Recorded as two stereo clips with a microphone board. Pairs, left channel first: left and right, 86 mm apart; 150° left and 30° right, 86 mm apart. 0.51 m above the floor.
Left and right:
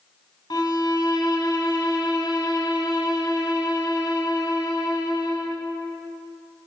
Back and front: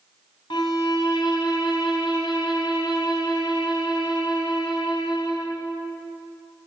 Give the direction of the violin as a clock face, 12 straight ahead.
8 o'clock.